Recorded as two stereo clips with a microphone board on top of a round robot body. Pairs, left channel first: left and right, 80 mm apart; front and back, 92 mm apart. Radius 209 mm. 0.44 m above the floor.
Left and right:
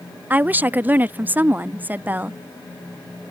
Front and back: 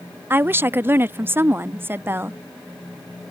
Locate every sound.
0.3 s a woman speaking: 135° right